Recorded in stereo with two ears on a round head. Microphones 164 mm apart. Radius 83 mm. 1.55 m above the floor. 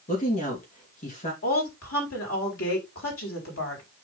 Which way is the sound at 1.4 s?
85° left.